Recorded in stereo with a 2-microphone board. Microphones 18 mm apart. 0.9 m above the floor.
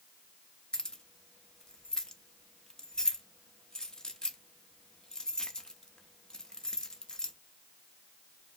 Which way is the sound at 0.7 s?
40° left (ahead or behind).